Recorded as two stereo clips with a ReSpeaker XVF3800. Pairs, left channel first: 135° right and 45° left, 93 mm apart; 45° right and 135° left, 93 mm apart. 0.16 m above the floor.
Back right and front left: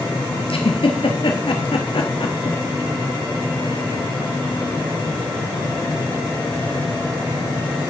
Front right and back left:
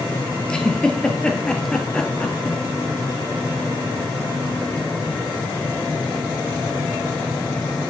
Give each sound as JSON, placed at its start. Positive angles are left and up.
{"t": 0.5, "sound": "a giggle", "azimuth_deg": -125, "distance_m": 0.9}